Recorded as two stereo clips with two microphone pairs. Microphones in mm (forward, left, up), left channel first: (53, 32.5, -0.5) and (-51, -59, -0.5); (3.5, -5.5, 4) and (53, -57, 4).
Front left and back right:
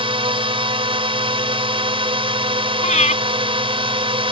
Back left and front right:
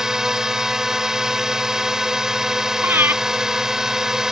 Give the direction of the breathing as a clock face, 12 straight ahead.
12 o'clock.